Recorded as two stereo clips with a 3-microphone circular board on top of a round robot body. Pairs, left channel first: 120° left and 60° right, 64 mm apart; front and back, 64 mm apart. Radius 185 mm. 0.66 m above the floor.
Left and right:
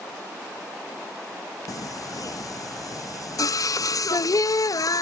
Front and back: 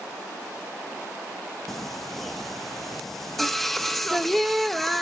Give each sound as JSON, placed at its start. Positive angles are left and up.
{"t": 1.7, "sound": "singing", "azimuth_deg": 85, "distance_m": 0.5}